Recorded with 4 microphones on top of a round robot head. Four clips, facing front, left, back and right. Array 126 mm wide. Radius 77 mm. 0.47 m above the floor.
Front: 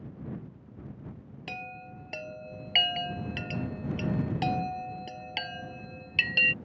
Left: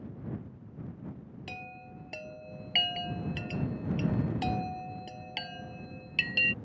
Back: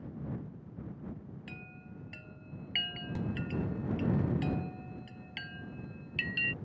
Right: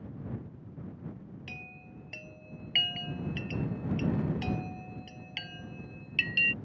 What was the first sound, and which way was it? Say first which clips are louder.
A chime: left 4 dB, front 8 dB; 15° left.